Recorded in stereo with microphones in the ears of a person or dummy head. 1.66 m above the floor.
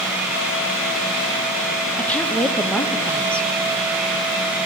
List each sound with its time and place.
2.0 s a woman speaking: 10° left (ahead or behind), 0.6 m